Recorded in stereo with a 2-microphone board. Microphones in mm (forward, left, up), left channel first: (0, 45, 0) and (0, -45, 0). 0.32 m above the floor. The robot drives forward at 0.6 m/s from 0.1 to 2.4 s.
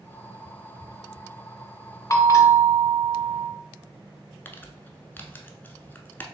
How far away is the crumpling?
About 0.6 m.